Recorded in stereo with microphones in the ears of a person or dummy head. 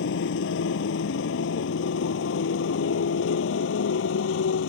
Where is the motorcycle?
70° left (ahead or behind); by 4.7 s 75° left (ahead or behind).